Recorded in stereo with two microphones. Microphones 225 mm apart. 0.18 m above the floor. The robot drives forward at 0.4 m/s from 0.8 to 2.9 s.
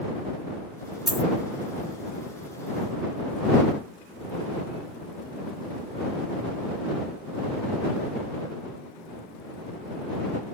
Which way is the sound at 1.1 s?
Centre (ahead or behind).